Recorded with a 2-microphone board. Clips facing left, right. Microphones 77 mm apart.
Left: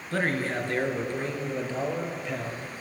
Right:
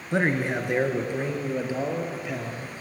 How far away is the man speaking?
About 1.3 m.